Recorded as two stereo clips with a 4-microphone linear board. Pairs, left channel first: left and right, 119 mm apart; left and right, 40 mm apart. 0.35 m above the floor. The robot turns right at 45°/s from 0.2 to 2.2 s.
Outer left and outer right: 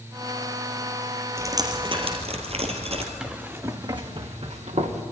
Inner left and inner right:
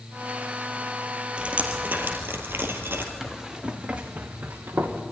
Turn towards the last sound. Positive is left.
turn(degrees=-75)  # may be behind; listen again after turning